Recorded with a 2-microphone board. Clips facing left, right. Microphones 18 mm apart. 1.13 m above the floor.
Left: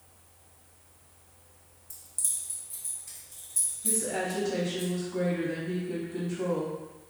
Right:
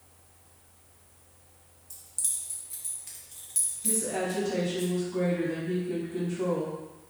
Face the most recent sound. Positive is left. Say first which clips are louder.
# right 1 dB
turn(degrees=5)  # may be behind; listen again after turning